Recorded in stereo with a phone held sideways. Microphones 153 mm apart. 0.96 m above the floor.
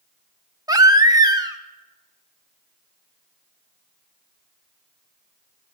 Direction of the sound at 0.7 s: 25° right (ahead or behind).